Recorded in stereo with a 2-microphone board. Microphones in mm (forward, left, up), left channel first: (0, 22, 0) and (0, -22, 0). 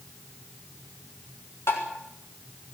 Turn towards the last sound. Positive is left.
turn(degrees=70)  # may be behind; listen again after turning